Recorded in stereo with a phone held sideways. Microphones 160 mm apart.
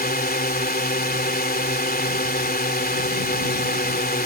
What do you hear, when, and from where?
0.0 s a drone: 75° left (ahead or behind)